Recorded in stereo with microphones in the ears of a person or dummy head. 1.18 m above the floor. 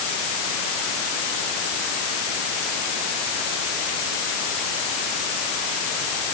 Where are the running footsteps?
I don't hear running footsteps.